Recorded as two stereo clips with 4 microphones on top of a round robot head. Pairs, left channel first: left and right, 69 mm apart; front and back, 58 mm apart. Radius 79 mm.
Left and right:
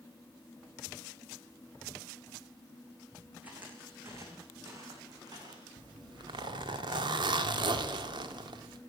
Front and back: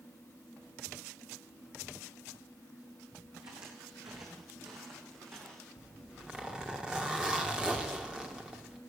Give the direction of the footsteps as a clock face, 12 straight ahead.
5 o'clock.